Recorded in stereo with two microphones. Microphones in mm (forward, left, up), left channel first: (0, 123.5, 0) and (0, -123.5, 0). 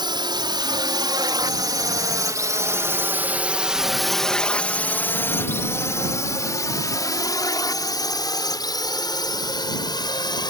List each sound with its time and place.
0.0 s a drone: 20° right (ahead or behind); by 10.5 s 15° left (ahead or behind)